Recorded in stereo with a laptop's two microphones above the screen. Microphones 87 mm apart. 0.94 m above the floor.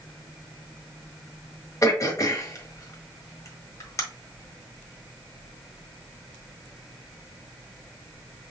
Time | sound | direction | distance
1.8 | throat clearing | 40° left (ahead or behind) | 1.4 m